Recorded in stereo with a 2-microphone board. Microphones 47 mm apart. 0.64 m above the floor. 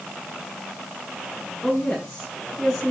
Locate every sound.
1.6 s a woman speaking: centre (ahead or behind), 7.5 m